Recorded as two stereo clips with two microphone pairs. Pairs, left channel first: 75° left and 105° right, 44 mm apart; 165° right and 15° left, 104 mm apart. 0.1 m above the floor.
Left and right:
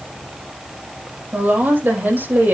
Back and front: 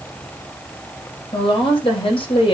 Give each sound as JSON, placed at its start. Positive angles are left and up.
{"t": 1.3, "sound": "a woman speaking", "azimuth_deg": -140, "distance_m": 4.5}